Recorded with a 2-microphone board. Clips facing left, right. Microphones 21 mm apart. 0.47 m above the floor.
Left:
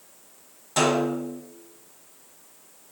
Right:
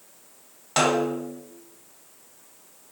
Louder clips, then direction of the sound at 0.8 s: Even; 35° right (ahead or behind).